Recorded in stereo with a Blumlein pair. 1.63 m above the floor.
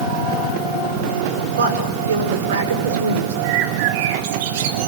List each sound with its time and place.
1.6 s a woman speaking: 65° right, 5.5 m
3.4 s a bird: 50° right, 3 m